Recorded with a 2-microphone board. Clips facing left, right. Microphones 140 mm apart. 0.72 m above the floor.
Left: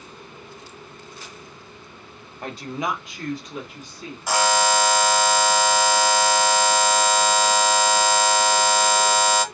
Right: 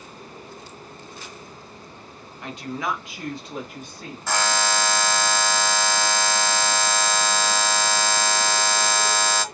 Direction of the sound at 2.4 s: 40° left (ahead or behind).